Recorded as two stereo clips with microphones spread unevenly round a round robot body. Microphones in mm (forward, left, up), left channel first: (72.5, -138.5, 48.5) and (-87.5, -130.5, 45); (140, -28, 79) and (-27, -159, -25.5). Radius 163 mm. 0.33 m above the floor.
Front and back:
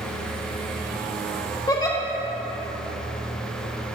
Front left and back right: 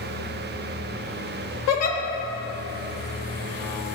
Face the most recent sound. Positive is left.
turn(degrees=60)